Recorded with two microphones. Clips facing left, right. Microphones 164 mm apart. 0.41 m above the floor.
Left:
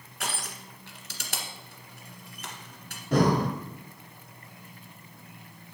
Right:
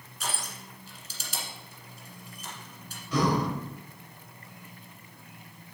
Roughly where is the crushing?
Left.